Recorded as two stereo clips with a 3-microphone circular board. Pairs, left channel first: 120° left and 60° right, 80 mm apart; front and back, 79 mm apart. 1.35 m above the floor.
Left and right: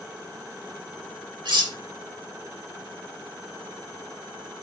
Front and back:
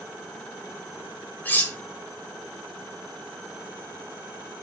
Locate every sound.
1.4 s cutlery clinking: 65° right, 2 m